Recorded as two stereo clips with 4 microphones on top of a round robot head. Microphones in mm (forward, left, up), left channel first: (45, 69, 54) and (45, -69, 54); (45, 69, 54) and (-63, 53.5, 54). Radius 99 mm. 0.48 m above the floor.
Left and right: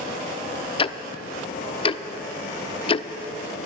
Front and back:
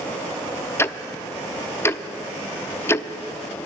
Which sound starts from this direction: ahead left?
Ticking, at 0.8 s.